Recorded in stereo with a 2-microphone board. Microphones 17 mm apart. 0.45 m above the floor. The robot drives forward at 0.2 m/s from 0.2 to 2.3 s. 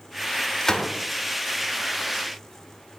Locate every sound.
0.6 s a gunshot: 25° left (ahead or behind), 0.6 m; by 0.9 s 20° left (ahead or behind), 0.6 m